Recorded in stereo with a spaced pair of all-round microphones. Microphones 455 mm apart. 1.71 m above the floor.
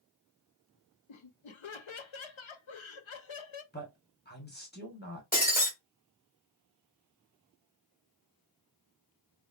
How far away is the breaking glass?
About 1.6 m.